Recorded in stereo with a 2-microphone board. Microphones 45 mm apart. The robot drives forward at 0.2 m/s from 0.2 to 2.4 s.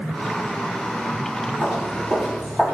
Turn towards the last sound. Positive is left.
turn(degrees=-20)  # may be behind; listen again after turning